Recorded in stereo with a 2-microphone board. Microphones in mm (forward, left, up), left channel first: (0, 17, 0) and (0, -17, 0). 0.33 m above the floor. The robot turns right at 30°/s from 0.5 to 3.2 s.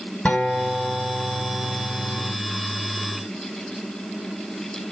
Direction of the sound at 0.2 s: 55° left.